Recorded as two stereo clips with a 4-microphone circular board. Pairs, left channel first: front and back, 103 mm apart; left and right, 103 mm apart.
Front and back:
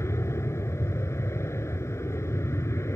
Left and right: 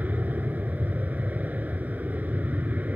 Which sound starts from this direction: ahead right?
An aircraft, at 0.0 s.